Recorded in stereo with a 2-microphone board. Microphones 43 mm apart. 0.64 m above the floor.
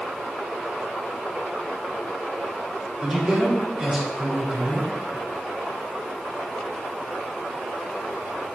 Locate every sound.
3.0 s a man speaking: 10° right (ahead or behind), 3.5 m